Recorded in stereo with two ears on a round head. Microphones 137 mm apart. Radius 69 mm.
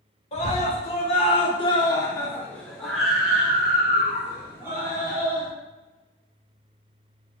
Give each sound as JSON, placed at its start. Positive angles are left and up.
{"t": 0.3, "sound": "a scream", "side_deg": 45, "distance_m": 1.3}